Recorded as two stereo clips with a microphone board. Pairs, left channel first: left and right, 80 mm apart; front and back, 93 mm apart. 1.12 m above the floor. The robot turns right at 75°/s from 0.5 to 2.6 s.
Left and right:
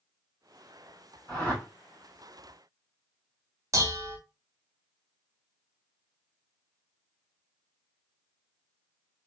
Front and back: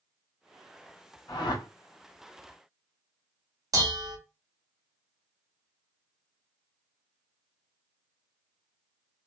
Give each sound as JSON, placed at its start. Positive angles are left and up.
{"t": 1.3, "sound": "a whoosh", "azimuth_deg": -45, "distance_m": 1.7}
{"t": 3.7, "sound": "dishes clattering", "azimuth_deg": -135, "distance_m": 0.8}